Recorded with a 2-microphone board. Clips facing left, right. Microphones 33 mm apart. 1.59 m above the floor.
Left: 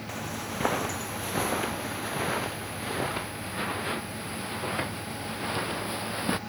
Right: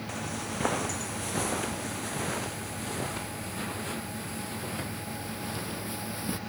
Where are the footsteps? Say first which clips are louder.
Left 1 dB; centre (ahead or behind); by 6.4 s 35° left (ahead or behind).